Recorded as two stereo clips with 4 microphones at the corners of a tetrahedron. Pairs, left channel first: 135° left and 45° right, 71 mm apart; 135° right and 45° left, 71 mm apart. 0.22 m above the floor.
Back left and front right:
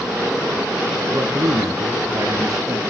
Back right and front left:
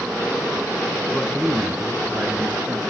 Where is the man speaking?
55° right, 2.5 m; by 2.8 s 15° right, 4 m.